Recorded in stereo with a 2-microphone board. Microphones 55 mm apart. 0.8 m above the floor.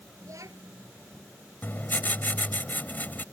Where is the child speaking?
85° right.